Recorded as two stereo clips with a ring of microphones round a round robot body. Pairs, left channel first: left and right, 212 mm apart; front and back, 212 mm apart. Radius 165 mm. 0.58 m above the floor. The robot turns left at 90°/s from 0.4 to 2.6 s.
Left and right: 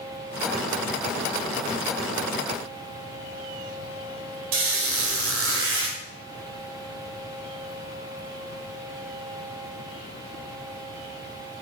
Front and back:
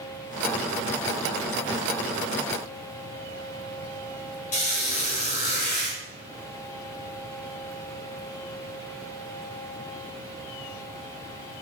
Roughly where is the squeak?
Ahead right.